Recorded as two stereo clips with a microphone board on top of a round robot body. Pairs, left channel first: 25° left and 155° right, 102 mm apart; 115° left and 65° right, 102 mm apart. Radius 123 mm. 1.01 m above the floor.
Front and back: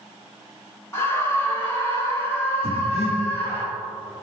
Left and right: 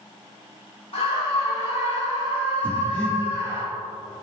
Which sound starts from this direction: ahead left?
Breathing, at 2.6 s.